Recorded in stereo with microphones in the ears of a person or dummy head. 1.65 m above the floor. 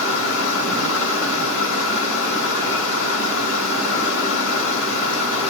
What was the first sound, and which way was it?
Running water, 75° left (ahead or behind).